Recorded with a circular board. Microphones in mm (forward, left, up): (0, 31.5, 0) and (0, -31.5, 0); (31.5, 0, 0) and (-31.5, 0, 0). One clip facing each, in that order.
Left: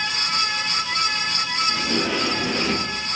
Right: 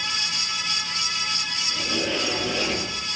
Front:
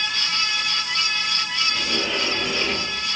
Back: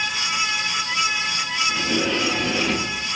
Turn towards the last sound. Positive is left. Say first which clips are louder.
# even, back 3 dB
turn(degrees=115)